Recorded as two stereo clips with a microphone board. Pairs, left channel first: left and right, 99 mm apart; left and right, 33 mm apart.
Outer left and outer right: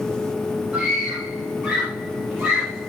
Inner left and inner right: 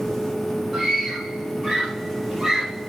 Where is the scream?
5° right (ahead or behind), 7.5 m.